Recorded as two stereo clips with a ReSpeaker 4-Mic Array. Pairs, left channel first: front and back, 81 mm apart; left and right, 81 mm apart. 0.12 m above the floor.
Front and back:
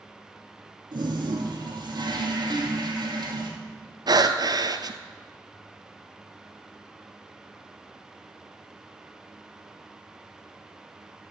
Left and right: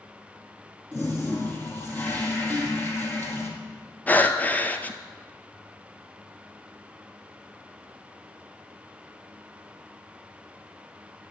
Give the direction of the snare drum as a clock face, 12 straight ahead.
3 o'clock.